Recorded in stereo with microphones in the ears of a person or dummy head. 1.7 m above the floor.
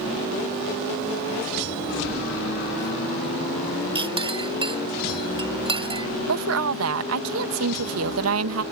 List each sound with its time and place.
4.0 s a clink: 30° right (ahead or behind)
6.3 s a woman speaking: 85° right